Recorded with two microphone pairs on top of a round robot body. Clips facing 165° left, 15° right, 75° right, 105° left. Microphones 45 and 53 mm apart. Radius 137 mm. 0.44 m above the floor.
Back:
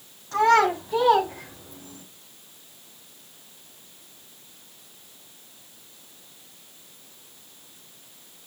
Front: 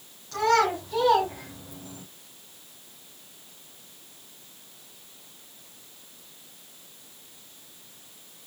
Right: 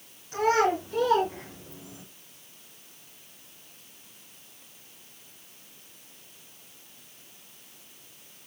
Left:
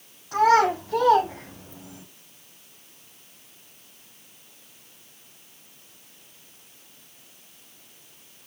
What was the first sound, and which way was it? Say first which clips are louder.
A child speaking: back 4 dB, left 5 dB; 110° left.